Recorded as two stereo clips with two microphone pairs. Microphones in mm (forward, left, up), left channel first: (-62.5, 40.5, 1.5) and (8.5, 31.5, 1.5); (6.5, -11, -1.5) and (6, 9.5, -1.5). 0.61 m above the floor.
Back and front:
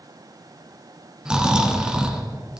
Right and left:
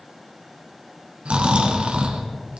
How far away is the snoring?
About 1.8 m.